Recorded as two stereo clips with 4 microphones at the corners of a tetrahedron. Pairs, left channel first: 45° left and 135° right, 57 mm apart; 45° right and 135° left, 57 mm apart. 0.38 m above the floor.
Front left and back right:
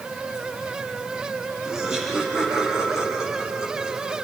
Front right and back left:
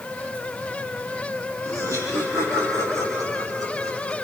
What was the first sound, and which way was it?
Laughter, 145° left.